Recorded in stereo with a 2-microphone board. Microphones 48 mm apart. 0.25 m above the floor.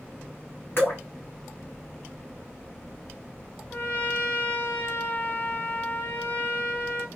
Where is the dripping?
55° left (ahead or behind), 1.8 m.